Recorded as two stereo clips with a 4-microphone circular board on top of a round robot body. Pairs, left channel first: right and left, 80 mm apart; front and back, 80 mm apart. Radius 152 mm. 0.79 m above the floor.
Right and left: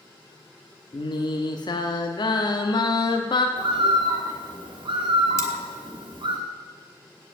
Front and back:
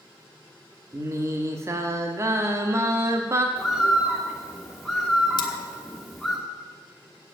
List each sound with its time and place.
0.9 s singing: 125° right, 0.9 m
3.6 s a bird: 90° left, 2.5 m
5.4 s cutlery clinking: 35° right, 1.0 m